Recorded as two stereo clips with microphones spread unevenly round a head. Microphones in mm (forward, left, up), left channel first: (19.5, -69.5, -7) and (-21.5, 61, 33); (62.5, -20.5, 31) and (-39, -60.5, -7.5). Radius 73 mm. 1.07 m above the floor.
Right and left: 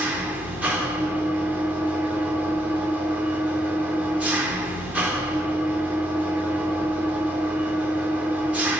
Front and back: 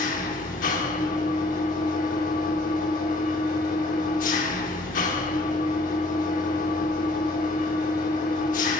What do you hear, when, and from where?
0.0 s an engine running: 25° left, 3 m